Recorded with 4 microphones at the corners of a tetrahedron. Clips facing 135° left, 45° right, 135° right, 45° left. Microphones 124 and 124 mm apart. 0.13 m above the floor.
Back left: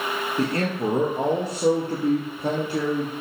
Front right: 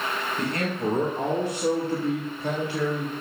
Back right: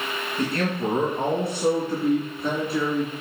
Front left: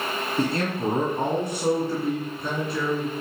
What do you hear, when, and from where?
0.4 s a man speaking: 90° left, 2.5 m; by 3.1 s 150° left, 2.5 m